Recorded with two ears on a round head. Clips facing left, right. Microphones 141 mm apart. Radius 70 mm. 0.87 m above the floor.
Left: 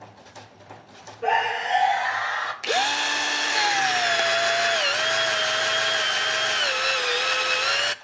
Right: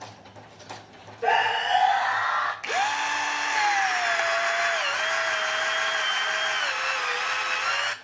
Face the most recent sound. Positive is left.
turn(degrees=40)  # may be behind; listen again after turning